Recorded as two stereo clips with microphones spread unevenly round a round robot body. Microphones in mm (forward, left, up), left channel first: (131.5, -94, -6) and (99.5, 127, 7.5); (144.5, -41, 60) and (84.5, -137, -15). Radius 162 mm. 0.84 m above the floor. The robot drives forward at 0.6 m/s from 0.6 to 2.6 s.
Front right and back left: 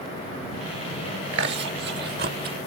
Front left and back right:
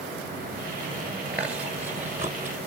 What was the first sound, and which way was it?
Chewing, 155° left.